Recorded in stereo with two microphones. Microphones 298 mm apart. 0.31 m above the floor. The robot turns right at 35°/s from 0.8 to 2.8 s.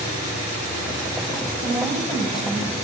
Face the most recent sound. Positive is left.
turn(degrees=35)